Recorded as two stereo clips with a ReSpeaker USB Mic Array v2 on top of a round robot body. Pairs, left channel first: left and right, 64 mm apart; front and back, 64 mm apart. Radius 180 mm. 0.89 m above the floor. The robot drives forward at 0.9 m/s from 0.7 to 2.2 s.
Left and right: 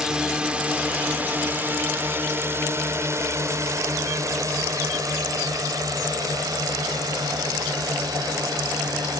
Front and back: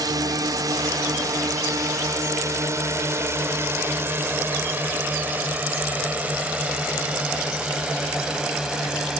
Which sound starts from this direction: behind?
A drone, at 0.0 s.